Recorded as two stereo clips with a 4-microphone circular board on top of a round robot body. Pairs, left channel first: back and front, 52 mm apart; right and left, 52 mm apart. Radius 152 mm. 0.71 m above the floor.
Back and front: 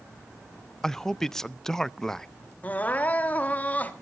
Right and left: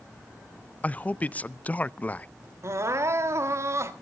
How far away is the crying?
About 1.3 m.